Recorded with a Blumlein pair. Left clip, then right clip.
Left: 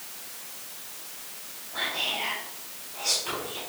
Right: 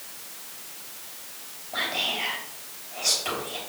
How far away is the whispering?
About 3.5 m.